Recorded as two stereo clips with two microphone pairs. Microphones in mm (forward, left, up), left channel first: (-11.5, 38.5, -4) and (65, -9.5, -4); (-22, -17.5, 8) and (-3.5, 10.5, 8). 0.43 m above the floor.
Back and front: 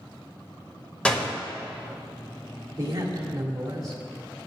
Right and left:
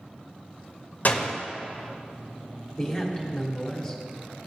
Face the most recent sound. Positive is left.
turn(degrees=-55)